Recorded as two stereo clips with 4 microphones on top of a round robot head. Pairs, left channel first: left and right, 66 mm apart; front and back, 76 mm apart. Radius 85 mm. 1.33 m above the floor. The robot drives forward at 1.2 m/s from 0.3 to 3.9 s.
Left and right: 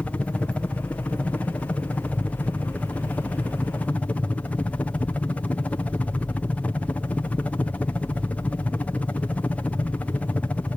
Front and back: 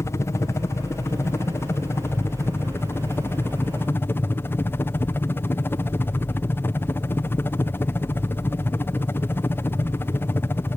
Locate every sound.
0.0 s a helicopter: 30° left; by 10.8 s 35° left